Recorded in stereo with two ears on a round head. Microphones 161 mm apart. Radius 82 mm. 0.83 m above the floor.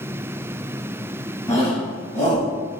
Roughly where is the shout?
Centre.